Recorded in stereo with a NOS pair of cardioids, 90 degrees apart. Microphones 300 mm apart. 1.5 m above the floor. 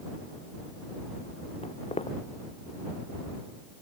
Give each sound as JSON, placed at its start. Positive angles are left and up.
{"t": 1.6, "sound": "footsteps", "azimuth_deg": 20}